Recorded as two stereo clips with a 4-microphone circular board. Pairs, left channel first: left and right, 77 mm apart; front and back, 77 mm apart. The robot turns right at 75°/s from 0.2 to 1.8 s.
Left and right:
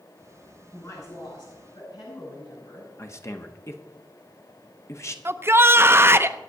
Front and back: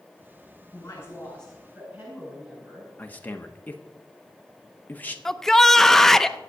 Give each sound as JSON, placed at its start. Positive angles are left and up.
{"t": 0.7, "sound": "a woman speaking", "azimuth_deg": 25, "distance_m": 9.0}
{"t": 3.0, "sound": "a man speaking", "azimuth_deg": 60, "distance_m": 1.4}
{"t": 5.2, "sound": "a shout", "azimuth_deg": -80, "distance_m": 0.7}